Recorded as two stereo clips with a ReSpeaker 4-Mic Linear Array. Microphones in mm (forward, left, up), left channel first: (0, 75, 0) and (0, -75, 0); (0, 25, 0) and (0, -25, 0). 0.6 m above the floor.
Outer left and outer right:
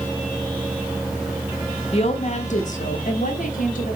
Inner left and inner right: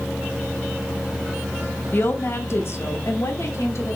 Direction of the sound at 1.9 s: 40° left (ahead or behind).